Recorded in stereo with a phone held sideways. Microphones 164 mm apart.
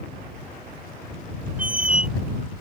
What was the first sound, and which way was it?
A squeak, 55° right (ahead or behind).